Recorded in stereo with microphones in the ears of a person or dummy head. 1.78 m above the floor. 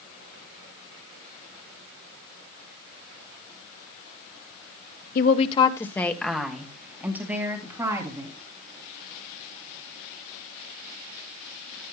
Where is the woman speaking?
50° left (ahead or behind), 1.1 m; by 8.3 s 20° right (ahead or behind), 4 m.